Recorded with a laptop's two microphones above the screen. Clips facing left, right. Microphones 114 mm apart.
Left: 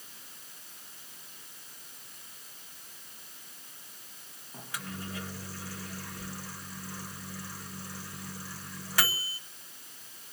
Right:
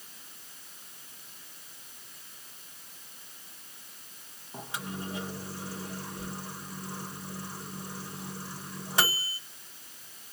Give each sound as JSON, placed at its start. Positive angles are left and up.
{"t": 4.5, "sound": "a microwave", "side_deg": -20, "distance_m": 1.1}